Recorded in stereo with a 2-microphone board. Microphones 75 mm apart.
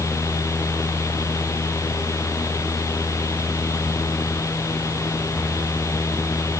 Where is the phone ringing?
I don't hear a phone ringing.